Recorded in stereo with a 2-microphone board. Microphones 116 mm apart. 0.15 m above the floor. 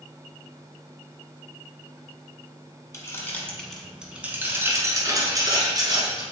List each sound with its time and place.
2.9 s keys jangling: 25° left (ahead or behind), 0.9 m; by 6.2 s 40° right (ahead or behind), 1.8 m